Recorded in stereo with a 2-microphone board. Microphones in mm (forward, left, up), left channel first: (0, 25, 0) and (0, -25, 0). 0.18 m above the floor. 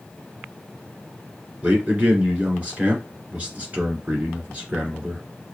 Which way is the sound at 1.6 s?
25° right (ahead or behind).